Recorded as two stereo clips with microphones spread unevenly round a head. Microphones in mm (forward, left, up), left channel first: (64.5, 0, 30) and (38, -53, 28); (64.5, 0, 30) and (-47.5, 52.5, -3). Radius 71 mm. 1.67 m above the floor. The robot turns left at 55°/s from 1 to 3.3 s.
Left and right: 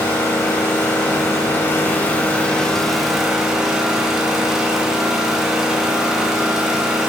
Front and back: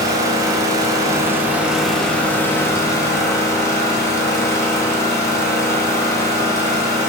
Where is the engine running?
90° left, 1.1 m; by 7.1 s 40° right, 1.1 m.